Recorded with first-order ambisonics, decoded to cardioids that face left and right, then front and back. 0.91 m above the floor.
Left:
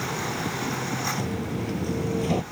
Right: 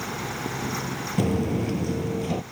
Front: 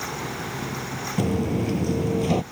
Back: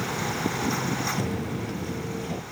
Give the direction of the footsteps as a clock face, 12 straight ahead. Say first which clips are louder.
Right 4 dB, front 5 dB; 2 o'clock.